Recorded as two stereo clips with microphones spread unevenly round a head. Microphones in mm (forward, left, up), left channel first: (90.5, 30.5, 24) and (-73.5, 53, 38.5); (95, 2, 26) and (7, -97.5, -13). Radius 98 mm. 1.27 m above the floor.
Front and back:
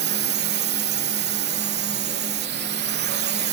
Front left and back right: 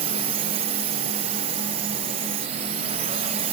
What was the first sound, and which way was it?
A drone, 170° right.